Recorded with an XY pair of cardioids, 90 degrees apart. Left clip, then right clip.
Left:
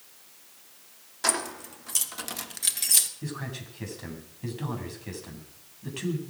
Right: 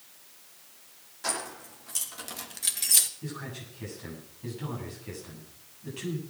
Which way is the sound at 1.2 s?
65° left.